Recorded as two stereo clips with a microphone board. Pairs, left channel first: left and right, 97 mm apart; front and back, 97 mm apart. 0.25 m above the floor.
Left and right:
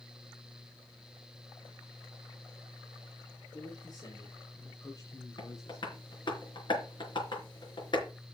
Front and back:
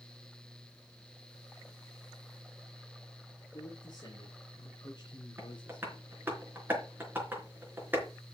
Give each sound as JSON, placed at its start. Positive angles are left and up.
{"t": 3.5, "sound": "a man speaking", "azimuth_deg": 50, "distance_m": 3.5}
{"t": 5.4, "sound": "tapping", "azimuth_deg": 115, "distance_m": 4.0}